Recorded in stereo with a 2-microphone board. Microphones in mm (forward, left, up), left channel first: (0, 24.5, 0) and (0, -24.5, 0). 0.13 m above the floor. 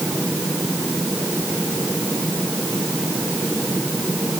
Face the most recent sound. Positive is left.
No sound to turn to.